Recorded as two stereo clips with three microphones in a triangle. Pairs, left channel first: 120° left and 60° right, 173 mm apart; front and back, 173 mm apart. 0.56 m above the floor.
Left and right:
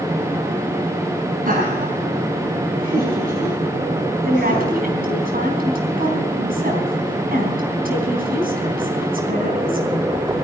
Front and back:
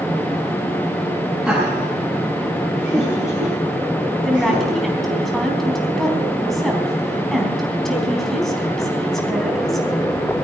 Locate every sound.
1.4 s laughter: 90° right, 5 m; by 4.8 s 55° right, 4.5 m
4.2 s a woman speaking: 90° right, 4 m